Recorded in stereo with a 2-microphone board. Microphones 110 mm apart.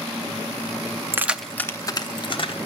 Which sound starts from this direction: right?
Keys jangling, at 1.1 s.